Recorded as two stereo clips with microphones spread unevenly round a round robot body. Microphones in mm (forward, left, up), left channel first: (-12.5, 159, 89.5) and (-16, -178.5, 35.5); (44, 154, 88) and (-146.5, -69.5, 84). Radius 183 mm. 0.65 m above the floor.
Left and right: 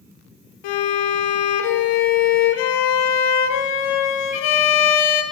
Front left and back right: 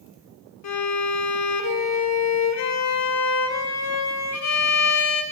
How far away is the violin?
About 1.8 m.